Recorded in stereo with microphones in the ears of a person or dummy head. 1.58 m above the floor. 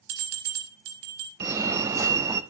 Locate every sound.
0.1 s a bell: 70° right (ahead or behind), 4.5 m
1.4 s a fire alarm: 15° right (ahead or behind), 0.7 m